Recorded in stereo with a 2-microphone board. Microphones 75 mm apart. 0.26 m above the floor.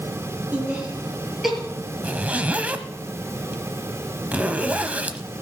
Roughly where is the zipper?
Centre.